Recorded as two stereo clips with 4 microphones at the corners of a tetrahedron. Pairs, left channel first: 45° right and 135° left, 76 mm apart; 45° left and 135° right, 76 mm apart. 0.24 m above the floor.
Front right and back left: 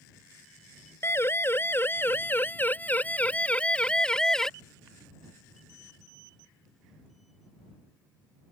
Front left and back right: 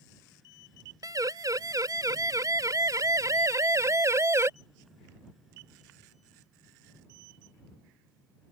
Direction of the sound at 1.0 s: 100° right.